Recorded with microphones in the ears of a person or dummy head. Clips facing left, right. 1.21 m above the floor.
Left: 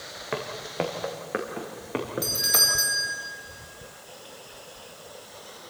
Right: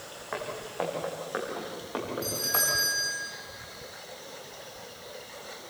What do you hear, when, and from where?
0.3 s footsteps: 45° left (ahead or behind), 4 m; by 2.6 s 30° left (ahead or behind), 6 m
2.2 s a doorbell: 20° left (ahead or behind), 6 m